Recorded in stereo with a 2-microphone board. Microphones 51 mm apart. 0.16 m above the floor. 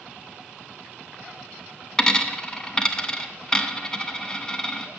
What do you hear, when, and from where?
2.0 s a dropped coin: 15° left (ahead or behind), 0.6 m